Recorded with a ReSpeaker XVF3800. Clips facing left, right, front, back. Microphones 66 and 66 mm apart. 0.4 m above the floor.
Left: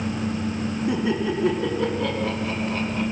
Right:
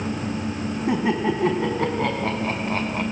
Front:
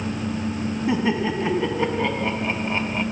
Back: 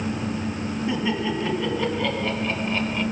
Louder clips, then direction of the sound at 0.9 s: Right 3 dB, front 3 dB; 65° right.